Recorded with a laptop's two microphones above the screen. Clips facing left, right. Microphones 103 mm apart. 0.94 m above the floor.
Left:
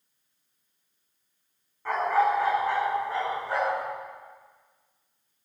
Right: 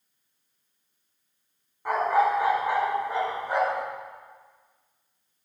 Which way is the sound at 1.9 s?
15° right (ahead or behind).